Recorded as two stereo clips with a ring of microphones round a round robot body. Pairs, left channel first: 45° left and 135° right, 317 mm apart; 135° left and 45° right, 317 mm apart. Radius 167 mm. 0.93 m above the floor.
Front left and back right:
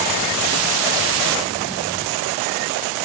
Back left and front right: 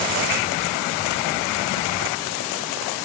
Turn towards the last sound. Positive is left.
No sound to turn to.